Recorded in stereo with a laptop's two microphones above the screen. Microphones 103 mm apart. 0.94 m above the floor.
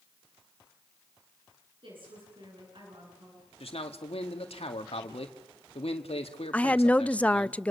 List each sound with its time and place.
1.8 s a woman speaking: 55° right (ahead or behind), 10 m
3.6 s a man speaking: 70° left (ahead or behind), 2.0 m
6.5 s a woman speaking: 15° left (ahead or behind), 0.6 m